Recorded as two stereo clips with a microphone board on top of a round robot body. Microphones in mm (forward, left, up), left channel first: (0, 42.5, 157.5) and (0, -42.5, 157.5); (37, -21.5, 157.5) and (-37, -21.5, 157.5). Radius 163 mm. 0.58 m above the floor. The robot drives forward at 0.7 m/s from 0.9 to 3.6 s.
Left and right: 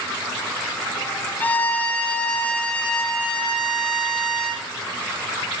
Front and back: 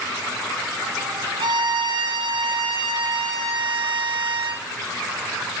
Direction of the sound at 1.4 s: 160° left.